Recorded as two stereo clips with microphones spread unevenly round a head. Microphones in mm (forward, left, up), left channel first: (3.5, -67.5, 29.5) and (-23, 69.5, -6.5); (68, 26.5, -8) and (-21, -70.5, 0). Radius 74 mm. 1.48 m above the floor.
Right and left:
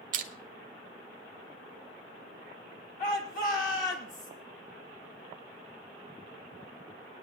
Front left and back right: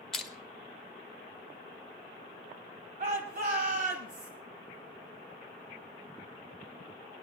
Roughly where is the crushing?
Behind left.